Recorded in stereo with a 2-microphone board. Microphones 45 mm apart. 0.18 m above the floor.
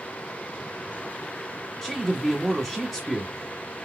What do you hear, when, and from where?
1.8 s a man speaking: 5° right (ahead or behind), 1.3 m